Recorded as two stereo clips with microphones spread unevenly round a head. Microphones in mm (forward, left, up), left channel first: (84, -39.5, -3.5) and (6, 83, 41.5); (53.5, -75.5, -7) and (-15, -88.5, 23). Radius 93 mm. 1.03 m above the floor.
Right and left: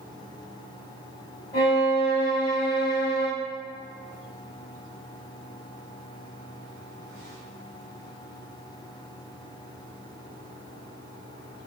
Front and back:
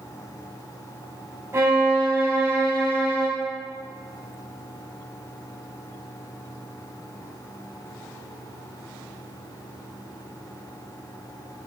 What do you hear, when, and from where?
1.5 s a violin: 125° right, 3.5 m